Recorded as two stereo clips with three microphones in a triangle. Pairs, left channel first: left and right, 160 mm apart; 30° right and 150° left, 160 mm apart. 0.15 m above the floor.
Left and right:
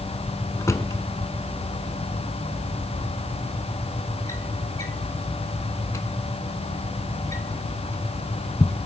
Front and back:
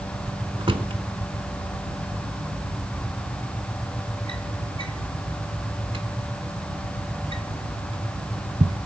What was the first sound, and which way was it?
A drawer, 145° left.